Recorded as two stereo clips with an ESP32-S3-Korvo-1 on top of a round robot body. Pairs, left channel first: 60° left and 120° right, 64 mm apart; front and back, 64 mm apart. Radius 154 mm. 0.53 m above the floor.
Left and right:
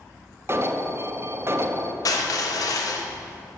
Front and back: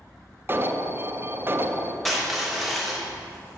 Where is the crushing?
90° left, 0.9 m.